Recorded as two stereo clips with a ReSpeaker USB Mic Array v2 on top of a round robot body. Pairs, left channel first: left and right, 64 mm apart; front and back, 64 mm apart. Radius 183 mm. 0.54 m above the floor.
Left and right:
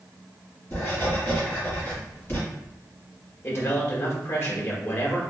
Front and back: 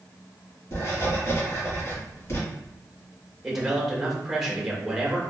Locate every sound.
0.7 s writing: 40° left, 2.0 m
3.4 s a man speaking: 100° left, 1.2 m